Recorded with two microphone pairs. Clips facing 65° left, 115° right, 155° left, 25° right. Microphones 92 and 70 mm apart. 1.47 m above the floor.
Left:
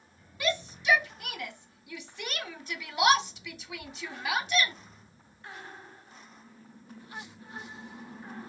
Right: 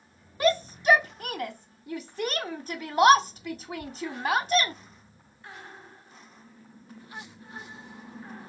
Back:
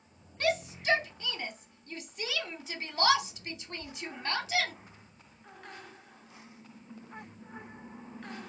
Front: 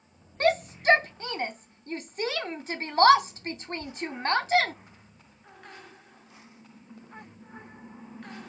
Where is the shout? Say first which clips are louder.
Right 7 dB, front 7 dB; 70° right, 0.8 m.